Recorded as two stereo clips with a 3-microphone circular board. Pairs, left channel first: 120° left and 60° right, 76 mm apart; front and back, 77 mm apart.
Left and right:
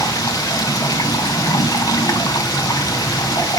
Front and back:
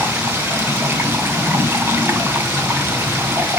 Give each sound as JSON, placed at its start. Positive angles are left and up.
{"t": 0.0, "sound": "running water", "azimuth_deg": 125, "distance_m": 1.6}